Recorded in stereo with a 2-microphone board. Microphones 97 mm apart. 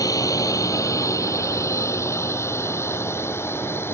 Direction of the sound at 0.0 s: 40° left (ahead or behind).